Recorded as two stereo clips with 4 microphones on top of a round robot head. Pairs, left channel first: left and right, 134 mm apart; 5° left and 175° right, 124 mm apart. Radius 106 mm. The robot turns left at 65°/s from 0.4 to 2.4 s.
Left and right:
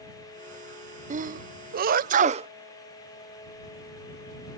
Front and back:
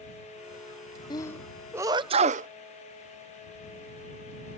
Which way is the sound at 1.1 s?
55° right.